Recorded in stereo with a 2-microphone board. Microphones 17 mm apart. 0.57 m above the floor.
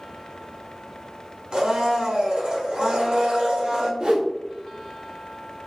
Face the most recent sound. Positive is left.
turn(degrees=-45)  # may be behind; listen again after turning